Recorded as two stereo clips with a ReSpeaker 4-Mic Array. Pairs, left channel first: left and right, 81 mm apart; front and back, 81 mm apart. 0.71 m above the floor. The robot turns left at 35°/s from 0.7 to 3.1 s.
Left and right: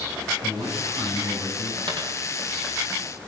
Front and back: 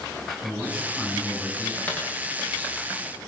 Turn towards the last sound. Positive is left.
turn(degrees=-115)